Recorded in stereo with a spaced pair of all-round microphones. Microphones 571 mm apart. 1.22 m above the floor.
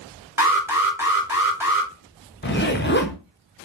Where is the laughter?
No laughter in this recording.